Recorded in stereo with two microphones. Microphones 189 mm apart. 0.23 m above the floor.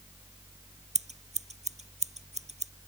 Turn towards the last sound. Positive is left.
turn(degrees=-35)  # may be behind; listen again after turning